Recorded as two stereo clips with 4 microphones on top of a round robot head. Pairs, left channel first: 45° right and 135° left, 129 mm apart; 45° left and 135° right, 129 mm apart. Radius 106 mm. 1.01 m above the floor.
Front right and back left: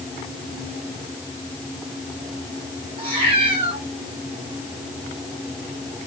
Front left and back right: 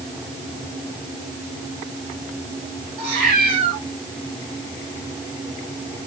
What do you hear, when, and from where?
3.0 s a cat meowing: straight behind, 5.5 m